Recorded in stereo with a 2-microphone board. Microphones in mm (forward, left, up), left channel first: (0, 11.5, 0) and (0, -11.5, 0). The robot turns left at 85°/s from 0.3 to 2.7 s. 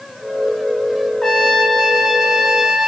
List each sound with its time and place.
1.2 s a trumpet: 25° left (ahead or behind), 0.9 m; by 2.9 s 5° right (ahead or behind), 0.9 m